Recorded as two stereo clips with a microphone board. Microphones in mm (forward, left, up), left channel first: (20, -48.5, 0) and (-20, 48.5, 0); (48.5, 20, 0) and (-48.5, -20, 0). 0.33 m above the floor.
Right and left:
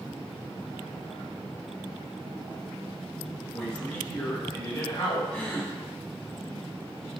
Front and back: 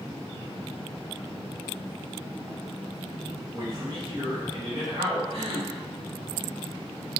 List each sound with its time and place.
3.5 s a man speaking: 155° right, 1.0 m; by 5.2 s 125° right, 2.0 m
5.3 s a gasp: 145° right, 0.9 m